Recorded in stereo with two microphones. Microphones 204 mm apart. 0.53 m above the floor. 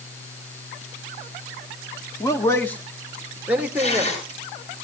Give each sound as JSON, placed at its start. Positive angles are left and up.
{"t": 2.2, "sound": "a man speaking", "side_deg": 20, "distance_m": 1.2}
{"t": 3.8, "sound": "tearing paper", "side_deg": 30, "distance_m": 7.0}